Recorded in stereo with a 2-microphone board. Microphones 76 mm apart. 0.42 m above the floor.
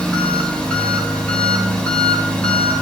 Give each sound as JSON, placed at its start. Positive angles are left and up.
{"t": 0.0, "sound": "an engine running", "side_deg": 15, "distance_m": 3.0}